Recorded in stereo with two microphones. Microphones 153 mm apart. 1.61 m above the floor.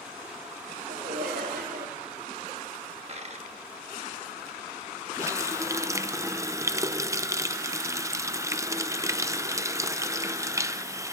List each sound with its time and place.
0.9 s laughter: 80° right, 2.5 m
3.1 s a dropped coin: 45° right (ahead or behind), 1.2 m
5.2 s a running tap: 20° right (ahead or behind), 0.6 m